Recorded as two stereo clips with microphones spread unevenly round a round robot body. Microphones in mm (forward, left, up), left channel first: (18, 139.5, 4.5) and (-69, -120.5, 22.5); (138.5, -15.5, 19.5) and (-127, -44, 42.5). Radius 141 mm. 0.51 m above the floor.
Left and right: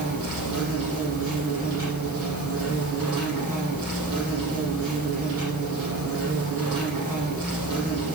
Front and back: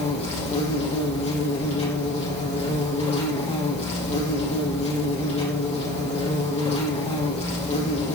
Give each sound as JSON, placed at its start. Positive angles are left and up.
{"t": 0.0, "sound": "an insect", "azimuth_deg": -60, "distance_m": 7.0}